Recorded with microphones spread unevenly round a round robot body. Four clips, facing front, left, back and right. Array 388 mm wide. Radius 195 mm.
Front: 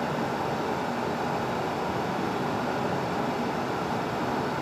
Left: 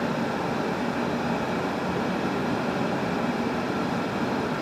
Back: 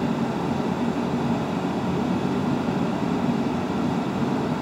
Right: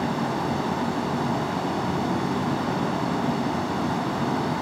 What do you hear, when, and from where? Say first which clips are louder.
0.0 s running water: right 1 dB, back 4 dB; 160° right, 0.8 m